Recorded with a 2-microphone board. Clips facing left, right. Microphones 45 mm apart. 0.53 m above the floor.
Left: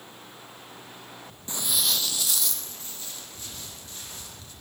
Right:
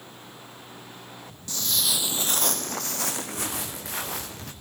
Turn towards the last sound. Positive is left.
turn(degrees=-75)  # may be behind; listen again after turning